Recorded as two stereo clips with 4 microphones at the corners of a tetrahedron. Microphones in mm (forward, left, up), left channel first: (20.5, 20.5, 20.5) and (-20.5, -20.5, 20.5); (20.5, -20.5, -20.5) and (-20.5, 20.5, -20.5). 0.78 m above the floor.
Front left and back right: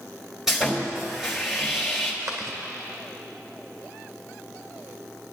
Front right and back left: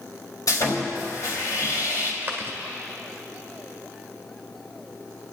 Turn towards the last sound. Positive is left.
turn(degrees=-170)